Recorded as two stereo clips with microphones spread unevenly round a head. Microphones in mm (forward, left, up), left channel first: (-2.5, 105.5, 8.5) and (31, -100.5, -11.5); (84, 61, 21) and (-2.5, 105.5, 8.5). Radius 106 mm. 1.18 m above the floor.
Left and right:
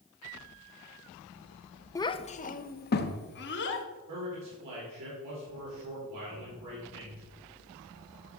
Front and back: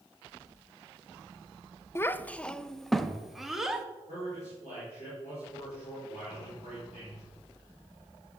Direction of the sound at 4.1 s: 85° right.